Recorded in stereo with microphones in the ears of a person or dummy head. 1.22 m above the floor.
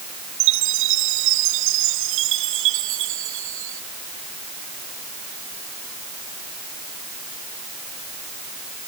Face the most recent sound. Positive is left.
turn(degrees=-75)  # may be behind; listen again after turning